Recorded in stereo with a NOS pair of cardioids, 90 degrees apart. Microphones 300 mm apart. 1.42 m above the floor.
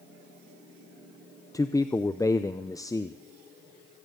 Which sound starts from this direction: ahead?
A man speaking, at 1.5 s.